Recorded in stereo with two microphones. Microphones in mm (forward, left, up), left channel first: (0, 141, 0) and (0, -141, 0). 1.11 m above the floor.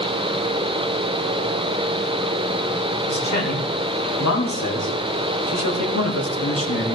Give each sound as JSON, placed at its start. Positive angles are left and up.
{"t": 3.1, "sound": "a man speaking", "side_deg": 80, "distance_m": 3.5}